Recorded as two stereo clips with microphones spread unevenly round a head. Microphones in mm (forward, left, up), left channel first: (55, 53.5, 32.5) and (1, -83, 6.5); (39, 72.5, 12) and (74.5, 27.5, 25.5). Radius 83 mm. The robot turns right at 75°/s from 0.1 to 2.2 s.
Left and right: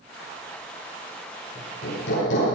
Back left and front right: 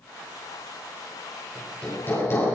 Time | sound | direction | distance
1.6 | hammering | 35° left | 10 m